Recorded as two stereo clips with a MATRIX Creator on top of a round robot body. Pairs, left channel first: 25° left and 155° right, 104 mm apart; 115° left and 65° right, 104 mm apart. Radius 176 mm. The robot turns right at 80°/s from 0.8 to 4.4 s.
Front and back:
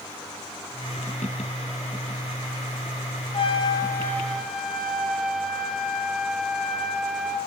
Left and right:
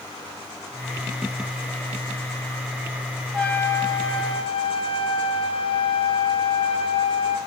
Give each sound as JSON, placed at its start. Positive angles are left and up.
{"t": 3.3, "sound": "a trumpet", "azimuth_deg": 30, "distance_m": 0.7}